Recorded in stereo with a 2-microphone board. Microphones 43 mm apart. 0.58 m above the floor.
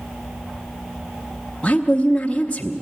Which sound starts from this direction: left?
A woman speaking, at 1.6 s.